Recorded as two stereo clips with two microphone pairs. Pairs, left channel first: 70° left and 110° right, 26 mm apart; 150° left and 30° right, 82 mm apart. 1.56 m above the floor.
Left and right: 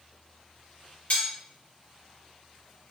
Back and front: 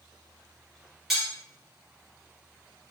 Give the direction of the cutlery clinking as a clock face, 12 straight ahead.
10 o'clock.